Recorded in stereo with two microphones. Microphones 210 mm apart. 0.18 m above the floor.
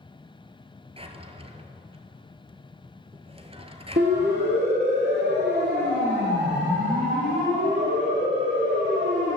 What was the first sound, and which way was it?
A drawer, 30° right (ahead or behind).